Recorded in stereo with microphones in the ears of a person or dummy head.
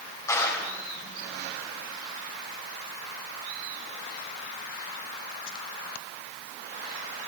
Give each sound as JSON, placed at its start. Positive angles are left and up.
{"t": 0.3, "sound": "a clap", "side_deg": 20, "distance_m": 4.5}